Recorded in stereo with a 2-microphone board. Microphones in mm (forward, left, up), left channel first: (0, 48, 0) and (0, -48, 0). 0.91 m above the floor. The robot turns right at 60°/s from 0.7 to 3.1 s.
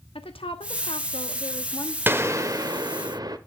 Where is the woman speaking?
75° left, 1.3 m; by 2.0 s 150° left, 1.3 m.